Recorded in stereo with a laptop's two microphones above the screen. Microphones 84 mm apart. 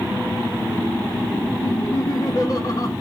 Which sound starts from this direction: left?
Laughter, at 1.6 s.